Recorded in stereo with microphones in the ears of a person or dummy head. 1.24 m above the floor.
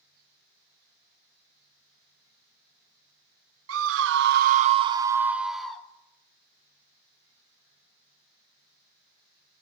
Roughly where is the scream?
Right.